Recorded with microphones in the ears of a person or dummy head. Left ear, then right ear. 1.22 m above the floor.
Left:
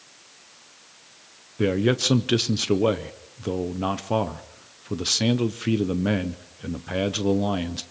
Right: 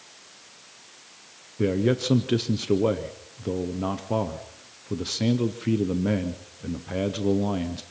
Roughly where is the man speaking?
Left.